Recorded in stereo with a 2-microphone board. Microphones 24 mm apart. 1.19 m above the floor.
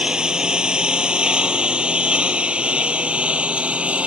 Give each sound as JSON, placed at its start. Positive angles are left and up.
{"t": 0.0, "sound": "a lawn mower", "side_deg": -35}